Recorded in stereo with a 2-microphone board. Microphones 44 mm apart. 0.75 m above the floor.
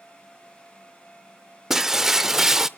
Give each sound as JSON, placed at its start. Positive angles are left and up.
{"t": 1.7, "sound": "breaking glass", "side_deg": -10, "distance_m": 0.6}